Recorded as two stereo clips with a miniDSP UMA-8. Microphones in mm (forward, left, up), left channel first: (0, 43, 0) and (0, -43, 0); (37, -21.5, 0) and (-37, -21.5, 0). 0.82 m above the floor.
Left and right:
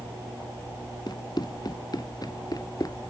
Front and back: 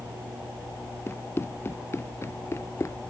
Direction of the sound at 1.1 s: 55° left.